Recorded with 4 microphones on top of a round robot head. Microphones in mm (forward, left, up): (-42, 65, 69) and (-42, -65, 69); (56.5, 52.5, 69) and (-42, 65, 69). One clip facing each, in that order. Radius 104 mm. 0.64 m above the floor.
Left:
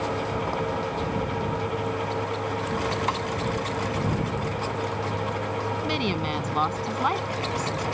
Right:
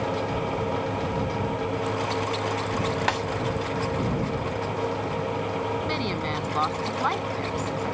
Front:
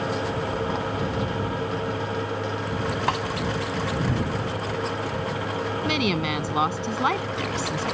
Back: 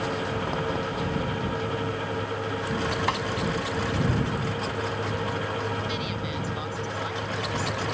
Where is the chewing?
I don't hear chewing.